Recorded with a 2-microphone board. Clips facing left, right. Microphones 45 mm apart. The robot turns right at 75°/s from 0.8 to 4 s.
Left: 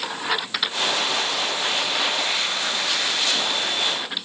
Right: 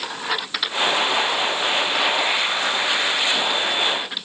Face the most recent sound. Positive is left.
No sound to turn to.